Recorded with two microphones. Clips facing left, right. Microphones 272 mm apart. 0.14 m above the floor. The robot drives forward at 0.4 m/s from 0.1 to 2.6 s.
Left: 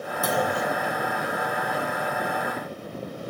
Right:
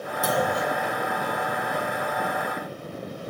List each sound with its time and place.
0.2 s a clunk: centre (ahead or behind), 1.0 m